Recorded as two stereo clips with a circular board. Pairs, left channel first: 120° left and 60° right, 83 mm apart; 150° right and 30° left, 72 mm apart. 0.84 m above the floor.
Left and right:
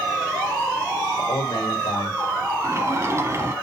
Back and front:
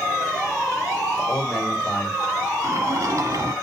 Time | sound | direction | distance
1.2 | a man speaking | 125° left | 3.5 m
2.6 | a sliding door | 5° right | 2 m